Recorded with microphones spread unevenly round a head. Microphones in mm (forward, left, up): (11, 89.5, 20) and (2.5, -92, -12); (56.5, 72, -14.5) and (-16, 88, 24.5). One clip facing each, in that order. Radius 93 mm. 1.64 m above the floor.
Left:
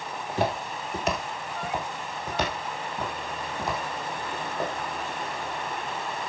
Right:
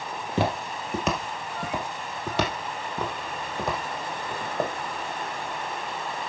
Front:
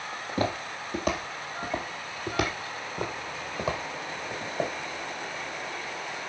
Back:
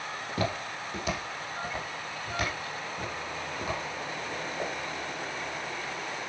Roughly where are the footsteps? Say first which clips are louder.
Right 1 dB, front 3 dB; behind right.